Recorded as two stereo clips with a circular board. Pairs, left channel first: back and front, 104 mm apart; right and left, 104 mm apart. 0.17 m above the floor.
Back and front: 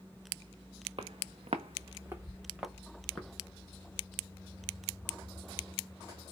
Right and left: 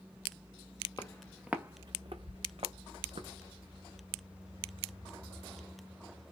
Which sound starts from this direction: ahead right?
Footsteps, at 1.0 s.